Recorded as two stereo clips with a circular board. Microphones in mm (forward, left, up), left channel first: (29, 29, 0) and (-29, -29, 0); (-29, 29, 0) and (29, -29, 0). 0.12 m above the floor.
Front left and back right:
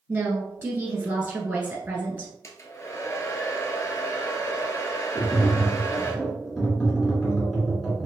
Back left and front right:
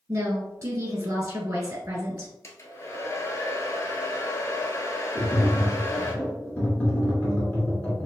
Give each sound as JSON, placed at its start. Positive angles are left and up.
{"t": 0.1, "sound": "a woman speaking", "azimuth_deg": -85, "distance_m": 1.6}
{"t": 2.4, "sound": "a hair dryer", "azimuth_deg": 95, "distance_m": 0.8}
{"t": 5.2, "sound": "tapping", "azimuth_deg": 130, "distance_m": 1.7}